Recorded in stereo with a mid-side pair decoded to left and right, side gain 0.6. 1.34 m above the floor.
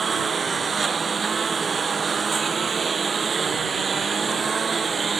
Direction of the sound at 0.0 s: 25° right.